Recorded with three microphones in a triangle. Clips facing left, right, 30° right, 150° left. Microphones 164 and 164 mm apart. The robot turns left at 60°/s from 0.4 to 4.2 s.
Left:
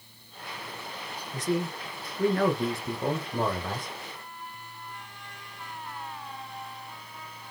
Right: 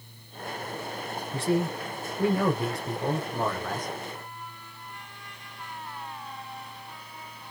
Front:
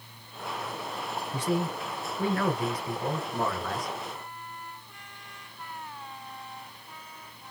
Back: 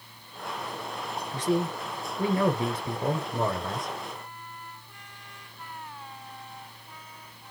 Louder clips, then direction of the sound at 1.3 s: Right 3 dB, back 3 dB; 95° right.